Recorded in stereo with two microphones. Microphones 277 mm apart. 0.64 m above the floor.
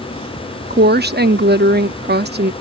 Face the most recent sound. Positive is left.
turn(degrees=-35)  # may be behind; listen again after turning